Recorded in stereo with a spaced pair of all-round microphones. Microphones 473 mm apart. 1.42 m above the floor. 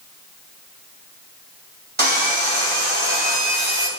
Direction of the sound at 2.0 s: 80° right.